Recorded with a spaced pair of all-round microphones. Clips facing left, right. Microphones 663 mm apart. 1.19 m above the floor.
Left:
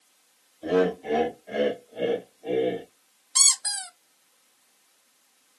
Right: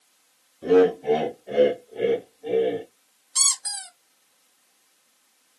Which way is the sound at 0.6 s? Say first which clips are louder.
Right 6 dB; 70° right (ahead or behind).